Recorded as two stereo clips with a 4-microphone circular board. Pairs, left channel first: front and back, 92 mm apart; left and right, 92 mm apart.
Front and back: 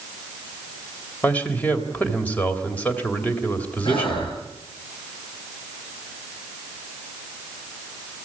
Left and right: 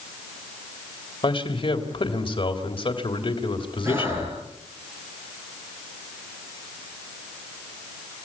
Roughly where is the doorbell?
No doorbell in this recording.